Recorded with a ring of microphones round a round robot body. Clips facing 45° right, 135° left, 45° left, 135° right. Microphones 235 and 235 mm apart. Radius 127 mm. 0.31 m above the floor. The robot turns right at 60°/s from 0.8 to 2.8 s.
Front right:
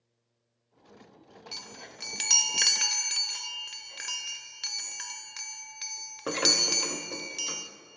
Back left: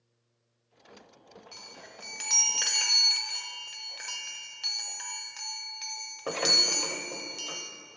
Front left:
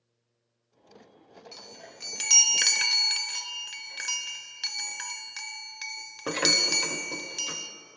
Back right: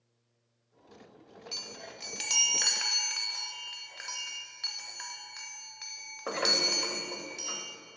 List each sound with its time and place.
1.5 s a chime: 65° right, 0.5 m; by 7.7 s 15° left, 0.5 m